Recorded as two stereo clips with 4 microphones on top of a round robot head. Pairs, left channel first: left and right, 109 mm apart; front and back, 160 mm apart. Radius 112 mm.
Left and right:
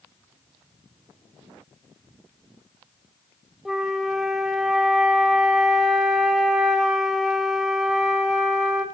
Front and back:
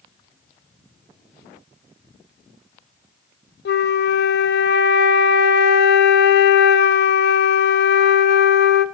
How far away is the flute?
About 0.7 m.